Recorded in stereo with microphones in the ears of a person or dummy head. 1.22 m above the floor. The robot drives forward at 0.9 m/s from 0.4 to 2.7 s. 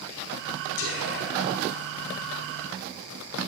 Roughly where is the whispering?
Left.